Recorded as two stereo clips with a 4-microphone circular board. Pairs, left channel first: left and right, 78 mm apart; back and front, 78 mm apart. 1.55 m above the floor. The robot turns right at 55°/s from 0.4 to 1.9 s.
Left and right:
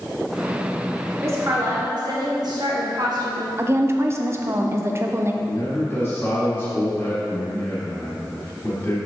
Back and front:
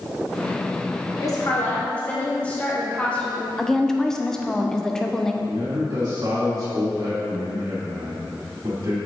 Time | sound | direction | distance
1.2 | a woman speaking | 145° right | 1.2 m
3.6 | a woman speaking | 100° right | 0.5 m
5.4 | a man speaking | 30° left | 1.7 m